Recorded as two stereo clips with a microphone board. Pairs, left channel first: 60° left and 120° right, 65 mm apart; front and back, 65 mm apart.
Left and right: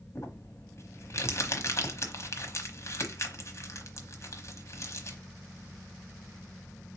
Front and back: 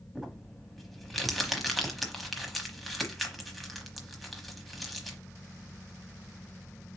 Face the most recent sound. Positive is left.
turn(degrees=90)